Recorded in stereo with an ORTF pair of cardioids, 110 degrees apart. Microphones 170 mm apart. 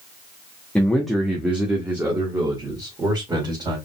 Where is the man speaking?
5° left, 1.0 m; by 3.8 s 25° right, 2.5 m.